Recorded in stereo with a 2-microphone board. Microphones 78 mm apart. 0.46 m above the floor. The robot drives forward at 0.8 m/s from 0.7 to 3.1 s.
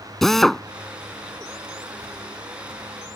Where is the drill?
5° left (ahead or behind).